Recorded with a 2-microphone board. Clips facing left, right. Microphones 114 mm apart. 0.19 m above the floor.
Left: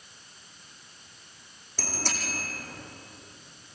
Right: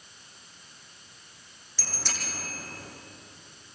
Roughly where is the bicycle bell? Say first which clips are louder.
Left 5 dB; left.